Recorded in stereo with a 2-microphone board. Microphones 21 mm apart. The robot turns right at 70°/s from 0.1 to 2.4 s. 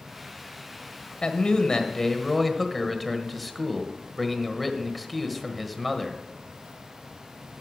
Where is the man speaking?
90° left, 1.3 m; by 6.2 s 175° left, 1.3 m.